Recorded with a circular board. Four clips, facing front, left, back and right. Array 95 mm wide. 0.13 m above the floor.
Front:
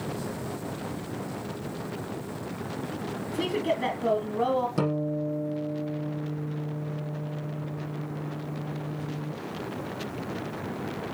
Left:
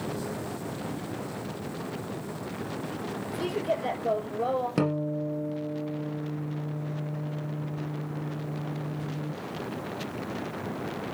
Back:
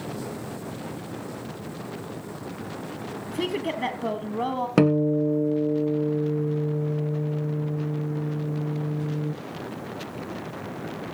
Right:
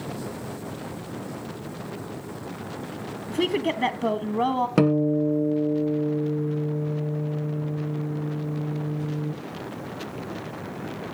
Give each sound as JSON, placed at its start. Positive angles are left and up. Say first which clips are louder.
{"t": 3.3, "sound": "a woman speaking", "louder": "right 5 dB, even", "azimuth_deg": -105, "distance_m": 3.0}
{"t": 4.8, "sound": "a guitar", "louder": "right 8 dB, back 8 dB", "azimuth_deg": -155, "distance_m": 2.5}